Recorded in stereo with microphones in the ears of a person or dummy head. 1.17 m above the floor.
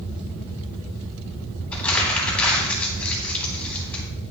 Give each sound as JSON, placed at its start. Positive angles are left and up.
{"t": 1.7, "sound": "crumpling", "side_deg": 5, "distance_m": 2.5}